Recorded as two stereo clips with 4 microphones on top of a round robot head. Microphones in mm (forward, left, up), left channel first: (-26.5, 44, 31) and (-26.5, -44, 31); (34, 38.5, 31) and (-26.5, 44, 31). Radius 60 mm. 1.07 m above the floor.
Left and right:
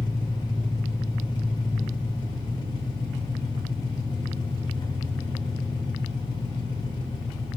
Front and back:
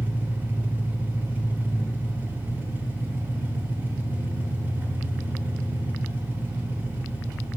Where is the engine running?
125° left, 1.1 m.